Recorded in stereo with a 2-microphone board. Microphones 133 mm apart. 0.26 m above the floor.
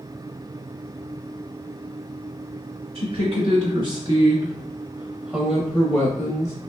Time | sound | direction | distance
3.0 | a woman speaking | 50° right (ahead or behind) | 1.7 m